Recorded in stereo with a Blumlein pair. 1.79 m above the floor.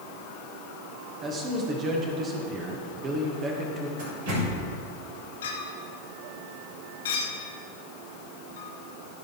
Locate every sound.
1.2 s a man speaking: 25° right, 2 m
4.0 s a door slam: 55° right, 4 m
5.4 s a clink: 65° left, 2.5 m